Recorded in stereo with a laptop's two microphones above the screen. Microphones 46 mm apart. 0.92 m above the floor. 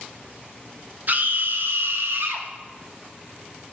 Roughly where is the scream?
Right.